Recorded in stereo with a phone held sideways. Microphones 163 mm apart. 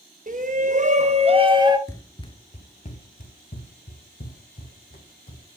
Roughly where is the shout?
Right.